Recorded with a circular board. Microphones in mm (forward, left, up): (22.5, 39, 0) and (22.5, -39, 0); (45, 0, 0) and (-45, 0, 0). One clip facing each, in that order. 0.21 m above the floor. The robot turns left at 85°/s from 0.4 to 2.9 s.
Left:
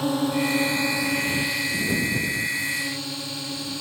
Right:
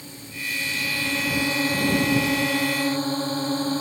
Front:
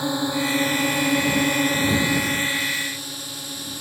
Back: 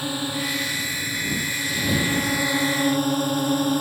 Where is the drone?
70° left; by 3.8 s 145° right.